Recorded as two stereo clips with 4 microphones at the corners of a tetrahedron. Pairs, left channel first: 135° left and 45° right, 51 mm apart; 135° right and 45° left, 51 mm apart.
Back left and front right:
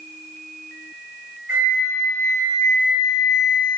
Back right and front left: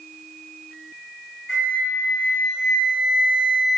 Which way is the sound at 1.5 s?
55° right.